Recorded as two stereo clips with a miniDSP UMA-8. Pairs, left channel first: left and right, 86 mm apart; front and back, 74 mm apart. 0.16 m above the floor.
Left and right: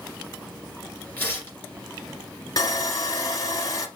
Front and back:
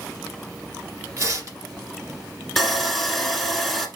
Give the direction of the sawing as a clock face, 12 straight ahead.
9 o'clock.